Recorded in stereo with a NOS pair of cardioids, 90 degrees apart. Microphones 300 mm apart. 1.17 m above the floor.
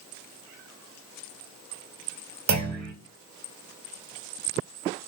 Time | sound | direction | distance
2.5 | a clunk | 60° right | 1.5 m